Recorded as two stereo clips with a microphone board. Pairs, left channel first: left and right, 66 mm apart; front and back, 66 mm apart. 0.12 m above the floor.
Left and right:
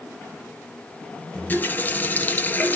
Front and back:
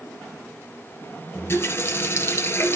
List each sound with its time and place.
1.4 s a running tap: 35° left, 1.5 m